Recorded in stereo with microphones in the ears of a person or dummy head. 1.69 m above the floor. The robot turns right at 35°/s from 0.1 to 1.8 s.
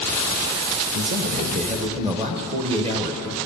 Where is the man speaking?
65° right, 1.3 m; by 3.4 s 35° right, 1.3 m.